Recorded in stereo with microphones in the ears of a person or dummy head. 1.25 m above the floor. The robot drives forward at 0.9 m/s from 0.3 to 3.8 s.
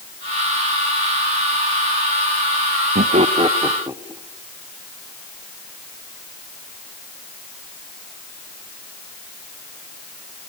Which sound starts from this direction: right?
Laughter, at 3.0 s.